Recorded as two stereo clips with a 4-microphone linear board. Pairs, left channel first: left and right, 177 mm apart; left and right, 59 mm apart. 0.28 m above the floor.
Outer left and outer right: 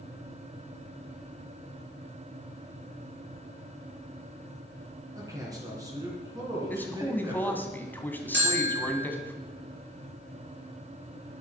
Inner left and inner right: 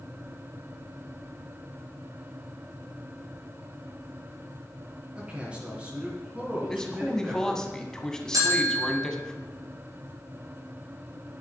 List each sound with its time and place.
5.2 s a man speaking: 20° right (ahead or behind), 3 m
6.7 s a man speaking: 10° left (ahead or behind), 1.9 m
8.3 s a bell: 70° right (ahead or behind), 4 m